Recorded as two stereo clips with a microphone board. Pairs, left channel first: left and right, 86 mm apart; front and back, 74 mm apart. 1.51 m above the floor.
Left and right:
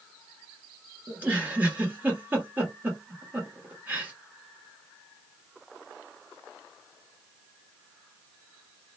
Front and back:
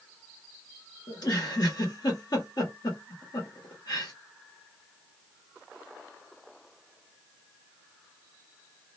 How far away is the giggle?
About 1.2 m.